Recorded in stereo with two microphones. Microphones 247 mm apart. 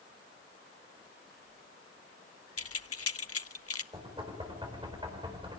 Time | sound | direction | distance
2.6 | keys jangling | 70° left (ahead or behind) | 0.7 m
3.9 | knocking | 20° right (ahead or behind) | 4.5 m